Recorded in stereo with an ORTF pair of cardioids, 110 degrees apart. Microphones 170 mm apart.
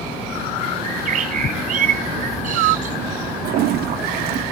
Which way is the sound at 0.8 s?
55° right.